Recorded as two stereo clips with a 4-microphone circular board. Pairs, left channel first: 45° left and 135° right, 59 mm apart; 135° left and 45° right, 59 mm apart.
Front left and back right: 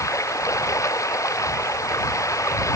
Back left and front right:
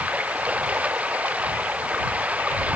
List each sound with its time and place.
0.0 s running water: 20° left